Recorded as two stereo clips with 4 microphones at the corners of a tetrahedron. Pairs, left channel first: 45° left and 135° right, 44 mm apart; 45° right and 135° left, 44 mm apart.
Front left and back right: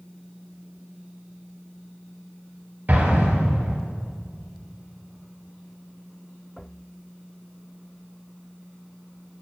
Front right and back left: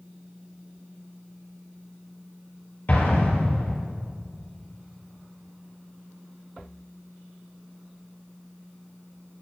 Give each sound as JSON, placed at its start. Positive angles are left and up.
{"t": 2.9, "sound": "an explosion", "azimuth_deg": -90, "distance_m": 2.5}